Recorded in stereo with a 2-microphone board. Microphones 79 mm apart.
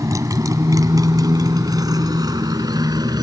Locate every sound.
0.0 s a motorcycle: 45° right (ahead or behind); by 3.2 s 55° right (ahead or behind)